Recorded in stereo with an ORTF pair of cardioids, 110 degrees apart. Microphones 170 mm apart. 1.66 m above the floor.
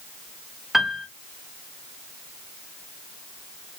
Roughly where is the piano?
Ahead.